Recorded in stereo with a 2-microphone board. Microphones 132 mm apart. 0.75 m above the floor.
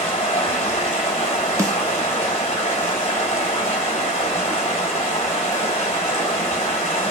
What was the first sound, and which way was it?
Running water, 45° left (ahead or behind).